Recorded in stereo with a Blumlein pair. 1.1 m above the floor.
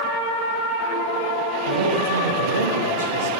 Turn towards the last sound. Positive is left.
turn(degrees=-70)